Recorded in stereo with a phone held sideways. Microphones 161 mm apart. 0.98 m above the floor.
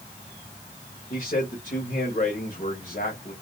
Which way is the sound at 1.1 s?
60° left (ahead or behind).